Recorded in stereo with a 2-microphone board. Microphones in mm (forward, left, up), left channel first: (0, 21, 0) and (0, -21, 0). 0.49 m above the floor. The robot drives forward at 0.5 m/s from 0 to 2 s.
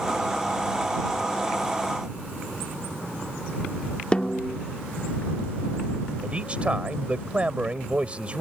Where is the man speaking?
25° right (ahead or behind).